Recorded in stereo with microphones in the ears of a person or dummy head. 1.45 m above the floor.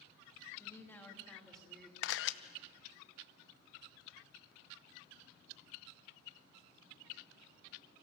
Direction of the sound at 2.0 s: 75° left (ahead or behind).